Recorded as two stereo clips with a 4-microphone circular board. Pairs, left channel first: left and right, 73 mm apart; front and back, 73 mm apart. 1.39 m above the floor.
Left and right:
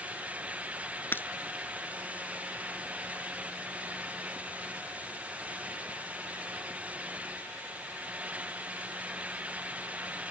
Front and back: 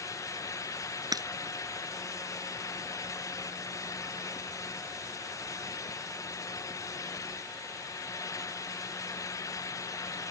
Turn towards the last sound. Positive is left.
turn(degrees=150)